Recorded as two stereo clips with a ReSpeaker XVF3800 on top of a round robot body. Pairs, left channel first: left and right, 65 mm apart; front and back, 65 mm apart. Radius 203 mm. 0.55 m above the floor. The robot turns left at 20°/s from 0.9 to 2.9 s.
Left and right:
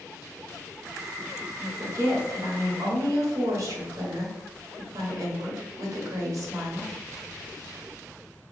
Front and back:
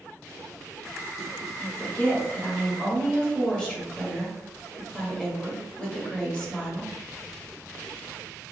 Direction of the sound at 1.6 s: 50° right.